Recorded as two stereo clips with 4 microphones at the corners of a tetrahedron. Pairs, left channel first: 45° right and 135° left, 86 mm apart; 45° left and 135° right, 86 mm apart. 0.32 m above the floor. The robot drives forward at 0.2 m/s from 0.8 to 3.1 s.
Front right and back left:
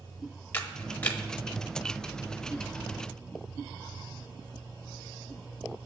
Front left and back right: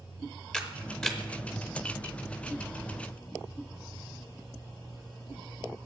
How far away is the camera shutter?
About 0.8 m.